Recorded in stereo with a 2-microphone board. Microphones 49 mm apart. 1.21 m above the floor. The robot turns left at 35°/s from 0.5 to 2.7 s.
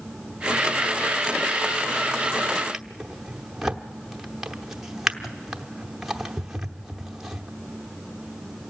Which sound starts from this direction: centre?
A drawer, at 2.7 s.